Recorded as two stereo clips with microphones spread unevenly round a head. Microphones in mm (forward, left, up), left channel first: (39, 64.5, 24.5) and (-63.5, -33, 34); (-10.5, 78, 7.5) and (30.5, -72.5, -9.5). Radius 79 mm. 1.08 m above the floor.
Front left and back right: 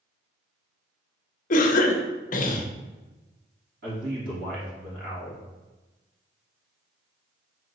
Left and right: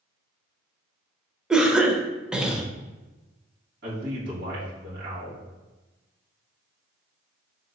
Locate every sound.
1.5 s a cough: 10° left, 0.5 m
3.8 s a man speaking: 105° right, 1.6 m